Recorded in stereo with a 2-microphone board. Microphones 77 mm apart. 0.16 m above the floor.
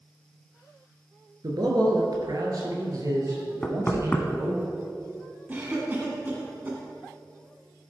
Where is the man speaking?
60° right (ahead or behind), 2 m; by 4.6 s 40° right (ahead or behind), 3.5 m.